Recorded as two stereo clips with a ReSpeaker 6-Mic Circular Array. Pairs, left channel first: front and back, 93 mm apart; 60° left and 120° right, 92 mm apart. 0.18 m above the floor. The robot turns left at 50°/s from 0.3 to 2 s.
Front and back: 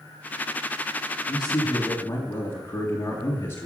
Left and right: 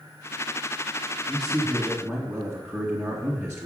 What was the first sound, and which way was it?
A man speaking, 10° right.